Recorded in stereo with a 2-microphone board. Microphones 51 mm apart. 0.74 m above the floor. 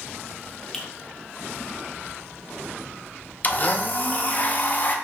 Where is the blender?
35° left (ahead or behind), 0.5 m.